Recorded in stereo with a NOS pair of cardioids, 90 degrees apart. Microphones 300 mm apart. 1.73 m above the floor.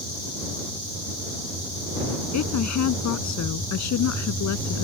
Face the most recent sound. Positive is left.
turn(degrees=65)